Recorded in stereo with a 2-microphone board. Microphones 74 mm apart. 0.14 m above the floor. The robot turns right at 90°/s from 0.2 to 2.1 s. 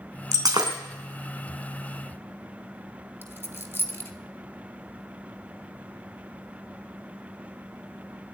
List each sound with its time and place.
0.3 s breaking glass: 40° right (ahead or behind), 3 m; by 0.8 s 80° right, 3 m
3.2 s a dropped coin: 30° left (ahead or behind), 1.5 m